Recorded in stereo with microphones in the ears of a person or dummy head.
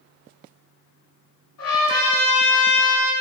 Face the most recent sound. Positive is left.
turn(degrees=70)  # may be behind; listen again after turning